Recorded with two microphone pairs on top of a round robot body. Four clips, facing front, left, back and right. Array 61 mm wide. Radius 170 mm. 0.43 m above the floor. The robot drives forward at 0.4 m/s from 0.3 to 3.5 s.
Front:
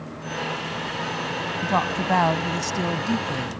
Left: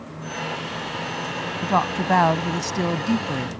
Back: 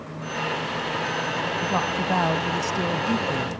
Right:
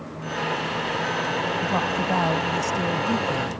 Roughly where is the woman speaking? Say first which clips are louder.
Left 2 dB, front 4 dB; ahead left.